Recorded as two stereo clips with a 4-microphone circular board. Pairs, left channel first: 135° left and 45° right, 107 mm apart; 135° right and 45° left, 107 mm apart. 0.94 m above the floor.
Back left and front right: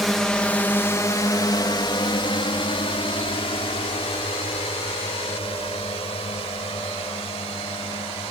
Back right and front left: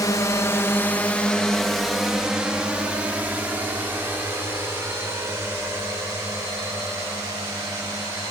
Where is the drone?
135° right; by 8.3 s 110° left.